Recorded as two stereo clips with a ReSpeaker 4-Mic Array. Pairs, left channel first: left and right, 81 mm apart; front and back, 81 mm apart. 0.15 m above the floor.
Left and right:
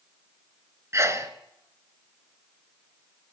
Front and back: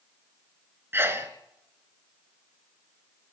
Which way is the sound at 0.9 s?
130° right.